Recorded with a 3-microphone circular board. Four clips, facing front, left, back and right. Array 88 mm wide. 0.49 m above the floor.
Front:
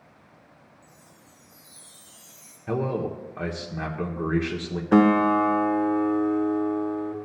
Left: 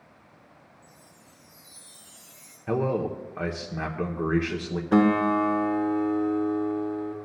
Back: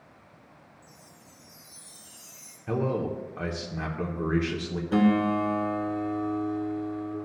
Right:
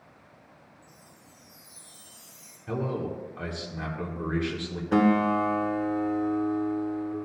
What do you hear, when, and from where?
0.8 s a chime: 125° left, 4.5 m
2.7 s a man speaking: 65° left, 0.8 m
4.9 s a guitar: 15° left, 0.8 m